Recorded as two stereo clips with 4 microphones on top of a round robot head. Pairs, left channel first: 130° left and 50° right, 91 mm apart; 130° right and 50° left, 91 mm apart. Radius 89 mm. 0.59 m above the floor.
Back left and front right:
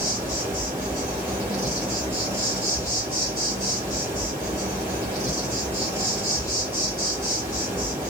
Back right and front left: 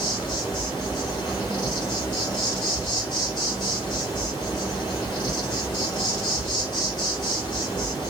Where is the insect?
105° right, 1.9 m.